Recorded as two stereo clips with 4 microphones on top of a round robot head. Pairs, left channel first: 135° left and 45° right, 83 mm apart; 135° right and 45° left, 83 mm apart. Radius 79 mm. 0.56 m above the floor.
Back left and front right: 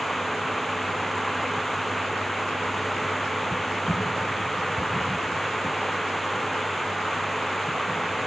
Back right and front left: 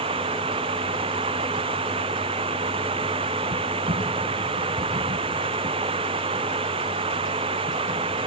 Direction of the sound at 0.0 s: 45° left.